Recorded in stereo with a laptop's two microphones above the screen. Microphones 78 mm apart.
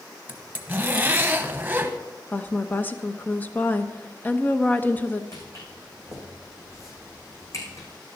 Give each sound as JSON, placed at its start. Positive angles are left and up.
{"t": 0.3, "sound": "a zipper", "side_deg": -20, "distance_m": 0.8}
{"t": 2.3, "sound": "a woman speaking", "side_deg": 25, "distance_m": 1.0}
{"t": 5.3, "sound": "footsteps", "side_deg": 40, "distance_m": 5.0}